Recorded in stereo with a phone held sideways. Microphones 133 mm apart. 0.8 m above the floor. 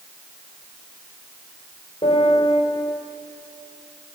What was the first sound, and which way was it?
A piano, 55° left (ahead or behind).